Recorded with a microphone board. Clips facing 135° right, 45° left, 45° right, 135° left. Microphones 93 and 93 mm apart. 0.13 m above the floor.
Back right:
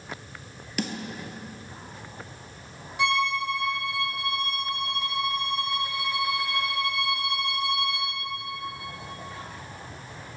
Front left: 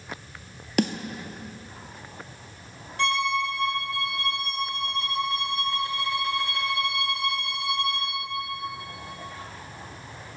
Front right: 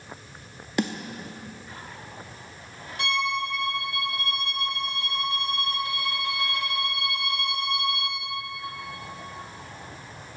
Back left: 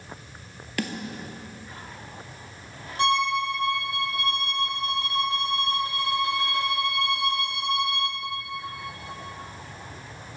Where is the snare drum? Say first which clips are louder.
Front left 7 dB, front right 4 dB; 20° left, 0.5 m.